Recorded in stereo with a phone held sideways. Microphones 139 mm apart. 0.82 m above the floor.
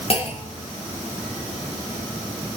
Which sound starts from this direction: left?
A clunk, at 0.1 s.